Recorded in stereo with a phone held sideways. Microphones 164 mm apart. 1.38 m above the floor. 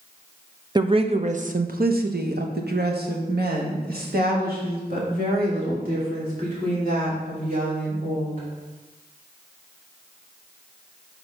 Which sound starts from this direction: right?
A woman speaking, at 0.8 s.